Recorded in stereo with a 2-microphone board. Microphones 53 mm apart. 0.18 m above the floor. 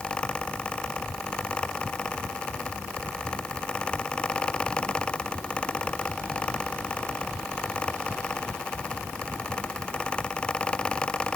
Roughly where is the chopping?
No chopping in this recording.